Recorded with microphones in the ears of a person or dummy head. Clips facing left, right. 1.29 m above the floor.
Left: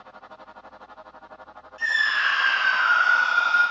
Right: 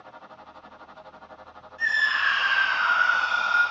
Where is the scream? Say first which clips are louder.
Left 1 dB; 75° left (ahead or behind), 1.9 m; by 3.6 s 25° left (ahead or behind), 1.7 m.